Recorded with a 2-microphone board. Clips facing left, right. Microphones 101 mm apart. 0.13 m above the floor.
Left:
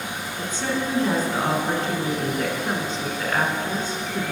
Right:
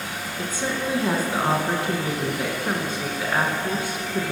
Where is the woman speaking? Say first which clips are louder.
Left 1 dB; 10° right (ahead or behind), 1.3 m.